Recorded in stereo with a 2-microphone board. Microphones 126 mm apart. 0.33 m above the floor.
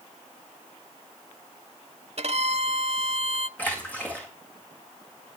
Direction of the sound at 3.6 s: 10° left (ahead or behind).